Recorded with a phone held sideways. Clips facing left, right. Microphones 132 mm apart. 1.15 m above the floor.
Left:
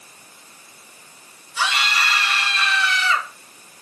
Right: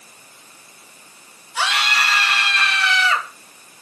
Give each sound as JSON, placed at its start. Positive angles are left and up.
{"t": 1.6, "sound": "a scream", "side_deg": -70, "distance_m": 2.0}